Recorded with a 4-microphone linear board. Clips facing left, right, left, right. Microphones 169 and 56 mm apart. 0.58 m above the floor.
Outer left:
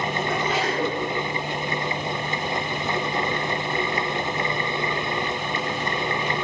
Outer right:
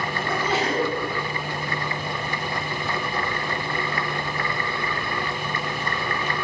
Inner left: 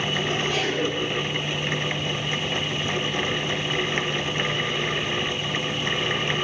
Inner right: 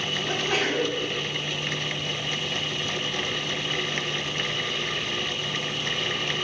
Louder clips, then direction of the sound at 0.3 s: Outer right 3 dB, inner left 1 dB; 30° right (ahead or behind).